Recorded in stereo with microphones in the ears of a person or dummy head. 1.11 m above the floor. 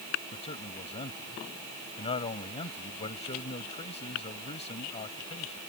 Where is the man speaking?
25° left (ahead or behind).